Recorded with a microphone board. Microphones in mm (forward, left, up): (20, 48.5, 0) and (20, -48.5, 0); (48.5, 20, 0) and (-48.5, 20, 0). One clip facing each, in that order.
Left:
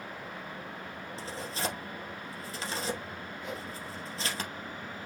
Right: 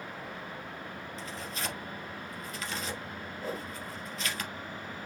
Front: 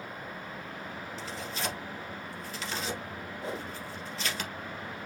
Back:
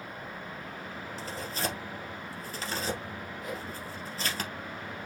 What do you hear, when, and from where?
1.2 s tearing paper: 140° left, 2 m
3.4 s a whoosh: 45° right, 1.0 m